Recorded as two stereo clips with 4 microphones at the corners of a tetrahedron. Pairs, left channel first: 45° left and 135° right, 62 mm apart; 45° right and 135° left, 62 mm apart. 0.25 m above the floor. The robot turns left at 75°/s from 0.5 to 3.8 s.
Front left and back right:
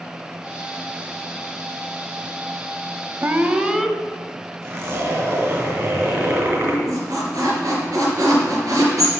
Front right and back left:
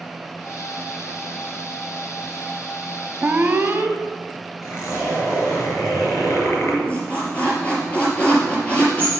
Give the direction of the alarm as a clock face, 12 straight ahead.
6 o'clock.